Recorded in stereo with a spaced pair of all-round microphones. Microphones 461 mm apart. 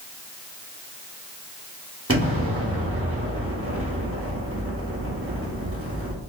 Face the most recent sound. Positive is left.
turn(degrees=-30)  # may be behind; listen again after turning